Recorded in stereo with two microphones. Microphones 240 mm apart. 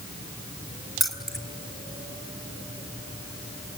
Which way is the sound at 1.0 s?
Centre (ahead or behind).